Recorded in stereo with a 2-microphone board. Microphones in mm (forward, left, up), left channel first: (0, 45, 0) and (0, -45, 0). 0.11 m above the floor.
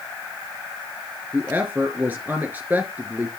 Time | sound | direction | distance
1.3 | a woman speaking | 20° right (ahead or behind) | 1.6 m